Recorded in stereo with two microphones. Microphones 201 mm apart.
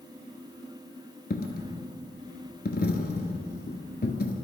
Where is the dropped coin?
50° left (ahead or behind), 0.8 m.